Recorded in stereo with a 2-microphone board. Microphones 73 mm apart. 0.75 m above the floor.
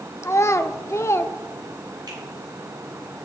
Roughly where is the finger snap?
Right.